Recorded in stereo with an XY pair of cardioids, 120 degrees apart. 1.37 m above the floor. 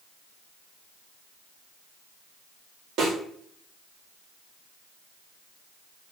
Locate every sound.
3.0 s a snare drum: 65° right, 1.4 m